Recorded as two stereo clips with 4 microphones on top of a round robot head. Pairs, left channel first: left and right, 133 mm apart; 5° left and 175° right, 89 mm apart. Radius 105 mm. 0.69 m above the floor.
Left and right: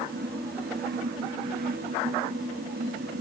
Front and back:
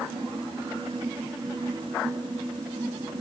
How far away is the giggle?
No giggle in this recording.